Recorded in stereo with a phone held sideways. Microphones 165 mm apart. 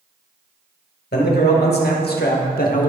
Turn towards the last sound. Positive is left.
turn(degrees=55)  # may be behind; listen again after turning